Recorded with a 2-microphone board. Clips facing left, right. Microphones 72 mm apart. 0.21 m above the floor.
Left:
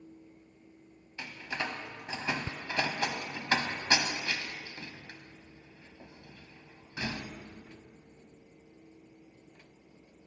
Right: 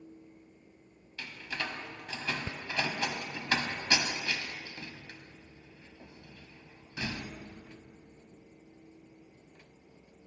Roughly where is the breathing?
I don't hear breathing.